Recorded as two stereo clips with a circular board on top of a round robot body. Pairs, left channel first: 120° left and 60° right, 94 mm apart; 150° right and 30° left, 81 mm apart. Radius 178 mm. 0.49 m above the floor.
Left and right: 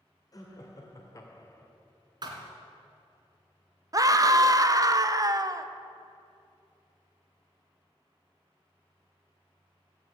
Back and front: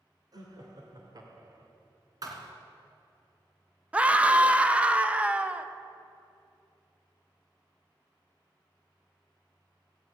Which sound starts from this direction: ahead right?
A scream, at 3.9 s.